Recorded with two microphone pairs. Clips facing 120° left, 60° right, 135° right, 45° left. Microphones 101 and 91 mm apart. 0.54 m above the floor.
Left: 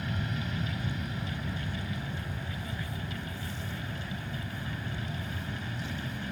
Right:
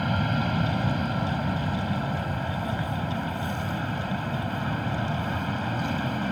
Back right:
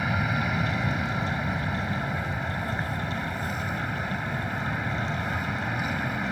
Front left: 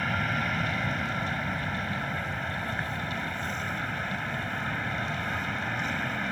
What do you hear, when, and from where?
0.0 s an aircraft: 50° right